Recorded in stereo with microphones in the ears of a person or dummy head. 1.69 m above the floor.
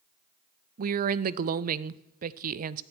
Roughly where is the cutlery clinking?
No cutlery clinking in this recording.